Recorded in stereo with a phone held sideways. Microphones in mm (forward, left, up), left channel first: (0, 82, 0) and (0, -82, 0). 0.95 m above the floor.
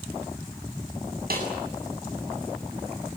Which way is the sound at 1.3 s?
70° right (ahead or behind).